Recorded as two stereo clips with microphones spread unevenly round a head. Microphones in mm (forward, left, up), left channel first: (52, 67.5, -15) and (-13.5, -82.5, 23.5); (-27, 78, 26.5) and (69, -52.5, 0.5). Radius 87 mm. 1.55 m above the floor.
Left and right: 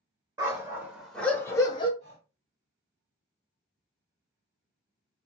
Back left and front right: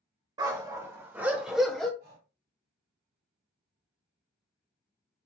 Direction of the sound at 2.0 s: 95° right.